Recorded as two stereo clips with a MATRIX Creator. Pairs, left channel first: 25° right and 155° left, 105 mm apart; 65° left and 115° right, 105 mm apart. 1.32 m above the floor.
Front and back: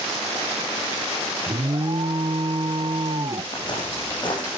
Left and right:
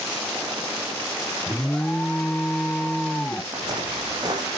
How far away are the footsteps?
About 3.5 m.